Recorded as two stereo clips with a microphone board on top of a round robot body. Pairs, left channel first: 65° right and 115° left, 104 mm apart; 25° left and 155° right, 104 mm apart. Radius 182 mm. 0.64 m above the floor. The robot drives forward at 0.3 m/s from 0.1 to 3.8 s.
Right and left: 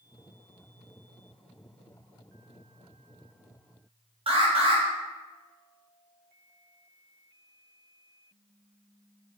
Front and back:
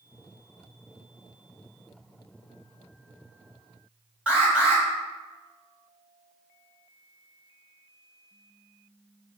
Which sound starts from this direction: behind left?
An alarm, at 4.3 s.